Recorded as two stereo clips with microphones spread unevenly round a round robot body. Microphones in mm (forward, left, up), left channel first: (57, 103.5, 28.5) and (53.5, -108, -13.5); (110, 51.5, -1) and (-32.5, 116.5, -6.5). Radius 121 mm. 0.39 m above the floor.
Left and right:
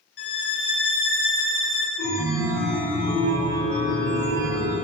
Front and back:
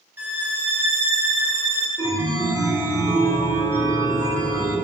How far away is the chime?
About 4.5 m.